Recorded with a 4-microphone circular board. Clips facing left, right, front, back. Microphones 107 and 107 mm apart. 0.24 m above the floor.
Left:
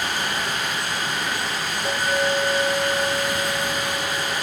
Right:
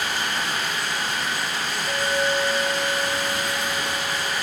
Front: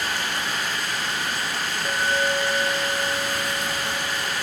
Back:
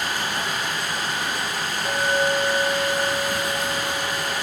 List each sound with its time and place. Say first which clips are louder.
0.0 s running water: left 1 dB, back 1 dB; 135° left, 8.5 m
1.9 s a clink: left 1 dB, back 2 dB; 90° left, 9 m